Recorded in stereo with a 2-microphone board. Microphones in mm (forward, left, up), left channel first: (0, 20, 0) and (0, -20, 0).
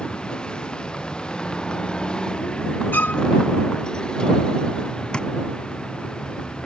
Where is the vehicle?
20° left (ahead or behind).